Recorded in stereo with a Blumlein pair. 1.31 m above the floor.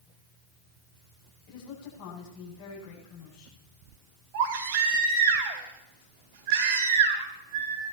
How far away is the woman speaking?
About 8 m.